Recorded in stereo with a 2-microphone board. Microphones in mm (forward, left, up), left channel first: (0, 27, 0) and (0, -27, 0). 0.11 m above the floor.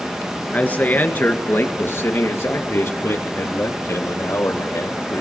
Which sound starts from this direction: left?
A man speaking, at 0.5 s.